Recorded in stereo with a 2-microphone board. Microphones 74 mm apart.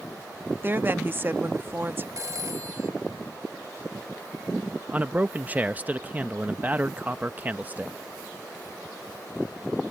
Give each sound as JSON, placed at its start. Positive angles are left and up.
{"t": 0.6, "sound": "a woman speaking", "side_deg": -30}
{"t": 2.2, "sound": "a phone ringing", "side_deg": -45}
{"t": 4.9, "sound": "a man speaking", "side_deg": -20}